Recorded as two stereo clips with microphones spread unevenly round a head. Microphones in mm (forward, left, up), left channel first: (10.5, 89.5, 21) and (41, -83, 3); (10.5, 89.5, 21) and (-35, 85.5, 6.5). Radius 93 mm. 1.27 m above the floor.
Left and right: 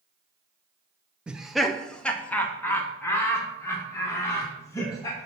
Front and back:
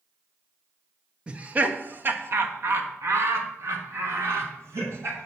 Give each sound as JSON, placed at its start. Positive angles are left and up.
{"t": 1.3, "sound": "laughter", "azimuth_deg": -155, "distance_m": 0.6}